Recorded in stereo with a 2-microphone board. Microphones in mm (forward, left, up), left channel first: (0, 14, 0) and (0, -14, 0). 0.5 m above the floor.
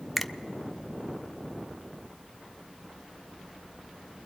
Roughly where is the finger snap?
Centre.